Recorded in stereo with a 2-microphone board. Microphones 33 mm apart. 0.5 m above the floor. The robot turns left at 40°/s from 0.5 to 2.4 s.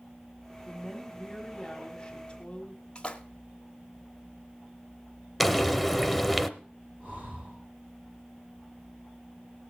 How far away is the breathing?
About 9.5 m.